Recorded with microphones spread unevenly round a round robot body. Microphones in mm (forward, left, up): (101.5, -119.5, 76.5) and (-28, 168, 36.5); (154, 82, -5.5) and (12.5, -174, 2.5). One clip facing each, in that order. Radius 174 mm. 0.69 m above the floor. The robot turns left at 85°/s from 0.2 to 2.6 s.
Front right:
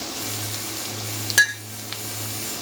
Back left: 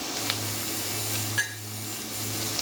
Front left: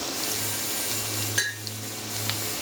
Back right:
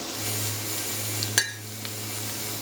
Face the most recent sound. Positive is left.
turn(degrees=160)